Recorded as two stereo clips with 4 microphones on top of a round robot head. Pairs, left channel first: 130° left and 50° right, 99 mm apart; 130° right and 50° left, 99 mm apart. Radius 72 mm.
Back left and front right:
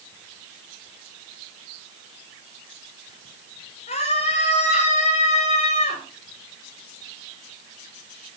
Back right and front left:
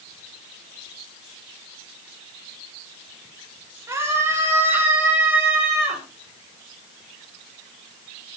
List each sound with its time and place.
3.9 s a scream: 115° left, 6 m; by 6.0 s 145° left, 5 m